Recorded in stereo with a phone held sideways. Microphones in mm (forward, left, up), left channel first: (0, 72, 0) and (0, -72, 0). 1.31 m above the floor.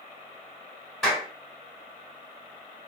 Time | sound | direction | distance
1.0 | a clap | centre (ahead or behind) | 2 m